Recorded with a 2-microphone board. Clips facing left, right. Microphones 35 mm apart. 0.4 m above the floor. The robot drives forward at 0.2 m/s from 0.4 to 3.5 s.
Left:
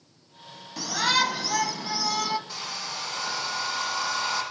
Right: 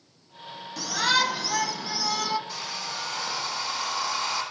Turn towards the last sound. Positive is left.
turn(degrees=10)  # may be behind; listen again after turning